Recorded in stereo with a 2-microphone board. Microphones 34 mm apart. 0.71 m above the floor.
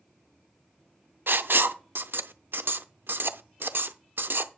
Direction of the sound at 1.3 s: 75° right (ahead or behind).